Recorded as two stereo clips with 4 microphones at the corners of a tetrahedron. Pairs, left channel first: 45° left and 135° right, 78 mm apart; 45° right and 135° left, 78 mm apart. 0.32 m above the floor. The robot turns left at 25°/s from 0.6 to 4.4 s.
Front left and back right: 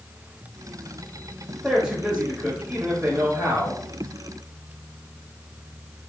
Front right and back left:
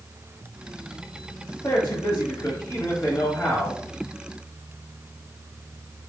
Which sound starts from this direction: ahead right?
A man speaking, at 1.6 s.